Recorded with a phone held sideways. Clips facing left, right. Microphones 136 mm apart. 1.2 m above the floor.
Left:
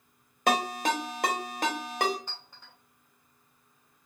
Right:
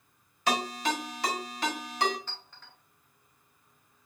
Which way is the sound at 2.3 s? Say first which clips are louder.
Even; 15° left (ahead or behind).